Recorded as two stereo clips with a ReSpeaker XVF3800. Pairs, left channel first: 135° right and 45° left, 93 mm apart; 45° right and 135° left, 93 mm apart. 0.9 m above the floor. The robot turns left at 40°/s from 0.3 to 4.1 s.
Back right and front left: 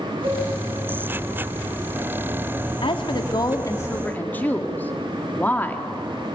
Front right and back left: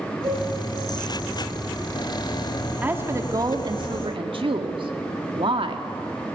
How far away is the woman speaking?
About 1.9 m.